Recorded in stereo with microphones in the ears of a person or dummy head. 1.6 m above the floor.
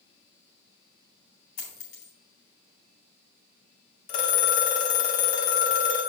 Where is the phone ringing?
50° left (ahead or behind), 1.2 m.